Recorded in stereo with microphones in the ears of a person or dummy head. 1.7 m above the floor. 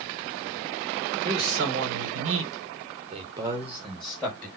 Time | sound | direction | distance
1.2 | a man speaking | 55° right (ahead or behind) | 1.8 m